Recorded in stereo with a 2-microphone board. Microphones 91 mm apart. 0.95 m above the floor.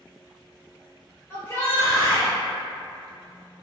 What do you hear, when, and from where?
1.3 s a shout: 30° left (ahead or behind), 1.1 m